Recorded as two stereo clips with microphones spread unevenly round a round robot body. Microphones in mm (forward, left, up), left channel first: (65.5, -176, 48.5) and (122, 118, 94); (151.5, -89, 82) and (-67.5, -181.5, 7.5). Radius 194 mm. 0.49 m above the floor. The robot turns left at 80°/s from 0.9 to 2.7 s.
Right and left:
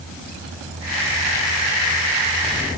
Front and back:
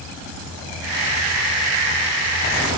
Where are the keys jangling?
No keys jangling in this recording.